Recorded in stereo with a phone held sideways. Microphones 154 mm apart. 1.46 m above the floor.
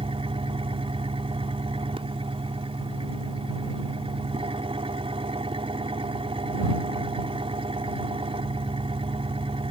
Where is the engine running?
35° right (ahead or behind).